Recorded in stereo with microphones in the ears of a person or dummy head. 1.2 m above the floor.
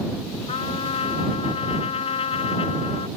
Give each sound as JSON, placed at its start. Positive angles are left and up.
{"t": 0.5, "sound": "a trumpet", "side_deg": 35}